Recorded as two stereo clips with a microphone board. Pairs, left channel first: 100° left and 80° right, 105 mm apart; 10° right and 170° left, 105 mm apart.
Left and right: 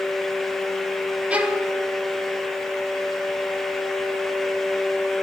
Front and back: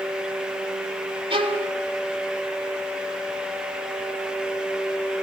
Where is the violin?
155° right, 2 m.